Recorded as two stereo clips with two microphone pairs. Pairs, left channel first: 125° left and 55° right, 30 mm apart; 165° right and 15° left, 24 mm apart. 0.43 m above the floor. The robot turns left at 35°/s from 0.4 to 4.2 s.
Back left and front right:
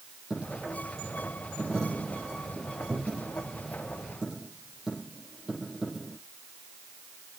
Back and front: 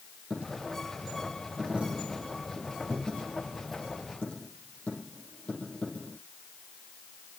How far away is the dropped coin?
About 6.5 m.